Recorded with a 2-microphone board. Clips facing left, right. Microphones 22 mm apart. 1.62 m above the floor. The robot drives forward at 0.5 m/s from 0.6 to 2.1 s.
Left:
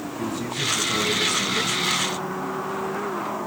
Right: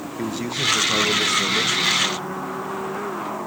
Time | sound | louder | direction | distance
0.2 | a man speaking | right 3 dB | 45° right (ahead or behind) | 1.6 m